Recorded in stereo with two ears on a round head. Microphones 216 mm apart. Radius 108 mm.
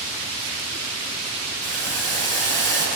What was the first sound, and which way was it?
Boiling, 50° right (ahead or behind).